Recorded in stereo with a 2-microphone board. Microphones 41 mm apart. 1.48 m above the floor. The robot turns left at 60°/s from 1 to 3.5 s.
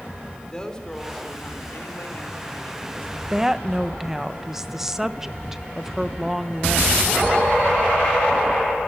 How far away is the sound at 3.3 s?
About 1.0 m.